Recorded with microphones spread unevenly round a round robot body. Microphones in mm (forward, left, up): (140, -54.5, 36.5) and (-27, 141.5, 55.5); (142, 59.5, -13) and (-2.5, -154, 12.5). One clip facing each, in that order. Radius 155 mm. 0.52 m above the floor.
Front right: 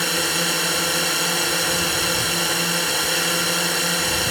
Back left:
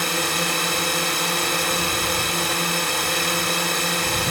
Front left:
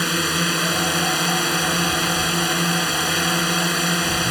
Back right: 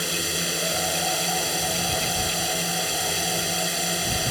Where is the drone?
40° left.